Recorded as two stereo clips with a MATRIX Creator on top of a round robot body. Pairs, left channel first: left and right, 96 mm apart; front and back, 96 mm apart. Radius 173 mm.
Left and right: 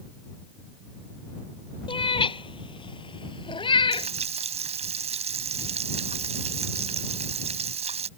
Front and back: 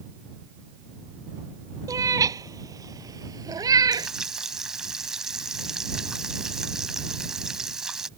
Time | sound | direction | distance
1.9 | a cat meowing | 125° left | ?
3.9 | frying | 95° right | ?